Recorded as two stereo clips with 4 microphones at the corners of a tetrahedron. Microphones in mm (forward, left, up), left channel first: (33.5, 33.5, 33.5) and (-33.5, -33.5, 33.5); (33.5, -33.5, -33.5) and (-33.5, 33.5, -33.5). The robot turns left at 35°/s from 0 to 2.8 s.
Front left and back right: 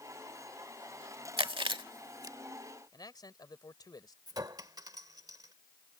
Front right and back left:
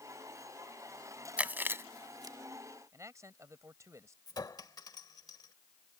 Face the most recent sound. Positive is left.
turn(degrees=-90)